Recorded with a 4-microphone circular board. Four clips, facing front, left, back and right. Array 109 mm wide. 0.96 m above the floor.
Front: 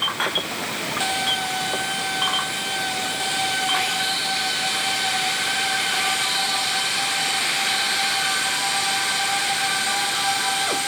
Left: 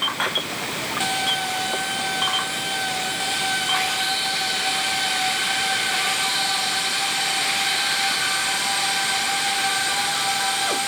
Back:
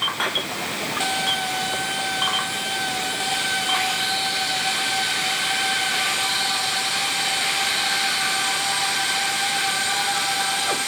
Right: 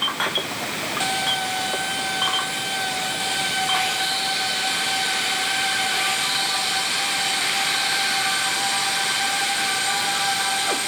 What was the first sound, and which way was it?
Only background noise.